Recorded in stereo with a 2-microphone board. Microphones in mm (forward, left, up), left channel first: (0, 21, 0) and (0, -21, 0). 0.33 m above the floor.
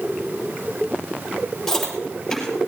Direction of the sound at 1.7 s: 5° left (ahead or behind).